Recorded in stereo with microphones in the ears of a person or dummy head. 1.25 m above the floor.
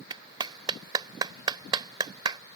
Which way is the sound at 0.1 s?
20° right (ahead or behind).